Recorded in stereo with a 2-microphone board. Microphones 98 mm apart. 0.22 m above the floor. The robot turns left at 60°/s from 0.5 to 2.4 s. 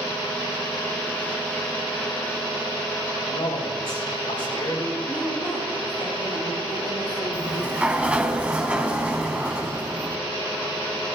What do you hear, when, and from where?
3.3 s a man speaking: 75° left (ahead or behind), 5 m
5.1 s a woman speaking: 45° left (ahead or behind), 4.5 m
7.3 s a sliding door: 15° right (ahead or behind), 0.9 m